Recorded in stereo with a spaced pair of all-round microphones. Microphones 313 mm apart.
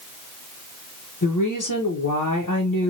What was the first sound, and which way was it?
A woman speaking, 75° left (ahead or behind).